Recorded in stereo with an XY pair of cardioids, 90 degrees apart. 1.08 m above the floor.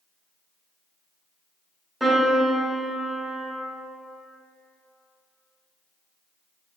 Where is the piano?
10° right, 1.0 m.